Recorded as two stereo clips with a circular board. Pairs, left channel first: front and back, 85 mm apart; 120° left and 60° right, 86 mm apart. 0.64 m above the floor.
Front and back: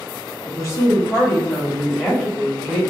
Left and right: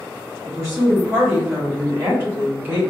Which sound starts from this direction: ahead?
A woman speaking, at 0.5 s.